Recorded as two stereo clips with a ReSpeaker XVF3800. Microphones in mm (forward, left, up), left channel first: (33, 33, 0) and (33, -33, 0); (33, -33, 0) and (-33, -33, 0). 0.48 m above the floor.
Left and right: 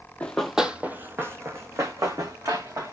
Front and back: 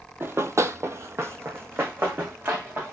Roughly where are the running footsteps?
Behind left.